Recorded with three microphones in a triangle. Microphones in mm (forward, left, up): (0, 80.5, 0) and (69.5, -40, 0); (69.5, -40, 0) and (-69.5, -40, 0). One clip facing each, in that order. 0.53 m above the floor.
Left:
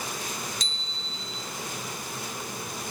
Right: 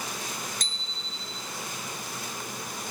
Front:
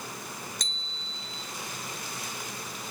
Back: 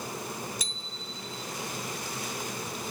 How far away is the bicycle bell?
About 2.5 m.